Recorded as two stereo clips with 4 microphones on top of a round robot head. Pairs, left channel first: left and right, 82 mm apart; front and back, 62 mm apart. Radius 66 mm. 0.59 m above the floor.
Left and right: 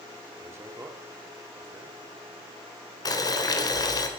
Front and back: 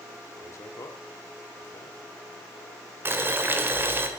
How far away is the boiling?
About 2.5 m.